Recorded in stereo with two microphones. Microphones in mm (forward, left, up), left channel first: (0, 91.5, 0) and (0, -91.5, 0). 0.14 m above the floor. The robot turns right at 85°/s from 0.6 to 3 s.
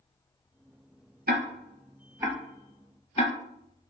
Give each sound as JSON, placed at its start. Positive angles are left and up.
{"t": 1.3, "sound": "ticking", "side_deg": -65, "distance_m": 0.8}